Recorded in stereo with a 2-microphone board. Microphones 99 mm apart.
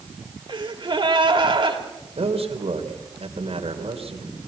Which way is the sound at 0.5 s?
50° right (ahead or behind).